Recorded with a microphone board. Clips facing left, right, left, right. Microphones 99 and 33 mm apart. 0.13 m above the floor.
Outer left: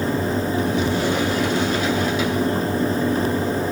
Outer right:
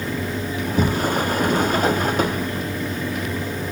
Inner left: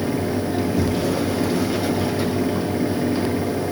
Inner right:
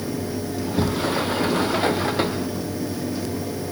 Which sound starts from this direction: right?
A sliding door, at 0.6 s.